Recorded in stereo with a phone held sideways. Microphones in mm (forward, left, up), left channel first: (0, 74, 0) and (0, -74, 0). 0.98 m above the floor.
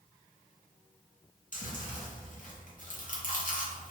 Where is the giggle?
I don't hear a giggle.